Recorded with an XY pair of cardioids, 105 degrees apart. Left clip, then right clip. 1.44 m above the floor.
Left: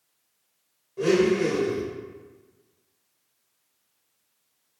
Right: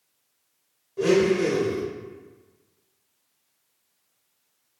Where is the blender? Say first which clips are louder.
Right 1 dB; 15° right, 1.5 m.